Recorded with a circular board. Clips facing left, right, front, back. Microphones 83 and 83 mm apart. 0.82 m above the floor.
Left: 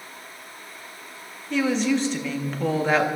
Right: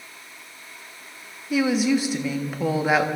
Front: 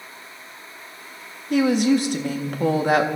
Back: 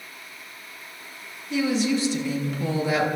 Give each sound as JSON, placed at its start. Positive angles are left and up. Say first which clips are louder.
{"t": 1.5, "sound": "a woman speaking", "louder": "right 2 dB, front 5 dB", "azimuth_deg": -10, "distance_m": 1.4}